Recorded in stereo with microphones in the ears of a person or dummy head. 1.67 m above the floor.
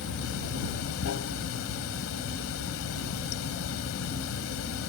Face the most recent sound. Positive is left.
turn(degrees=75)  # may be behind; listen again after turning